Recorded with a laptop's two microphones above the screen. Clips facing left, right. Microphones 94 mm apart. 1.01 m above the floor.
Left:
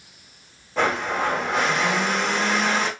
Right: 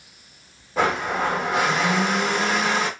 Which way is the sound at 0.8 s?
5° right (ahead or behind).